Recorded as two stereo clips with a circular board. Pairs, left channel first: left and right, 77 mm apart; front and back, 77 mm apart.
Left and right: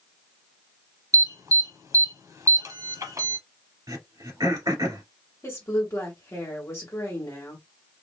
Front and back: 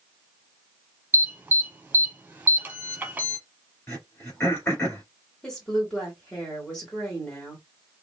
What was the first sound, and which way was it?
An alarm, 115° right.